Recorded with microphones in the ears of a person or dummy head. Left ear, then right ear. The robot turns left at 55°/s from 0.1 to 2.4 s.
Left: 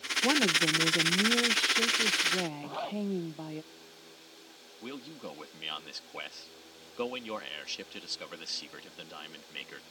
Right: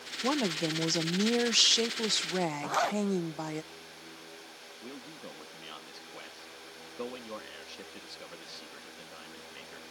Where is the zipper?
55° right (ahead or behind).